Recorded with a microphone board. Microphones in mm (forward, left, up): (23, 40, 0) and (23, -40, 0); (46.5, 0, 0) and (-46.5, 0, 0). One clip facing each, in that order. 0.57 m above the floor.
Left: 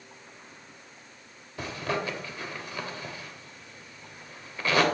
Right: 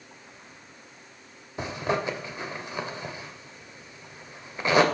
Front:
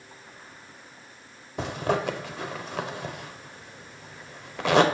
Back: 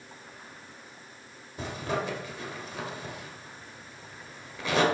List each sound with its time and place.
1.6 s a zipper: 20° right, 1.0 m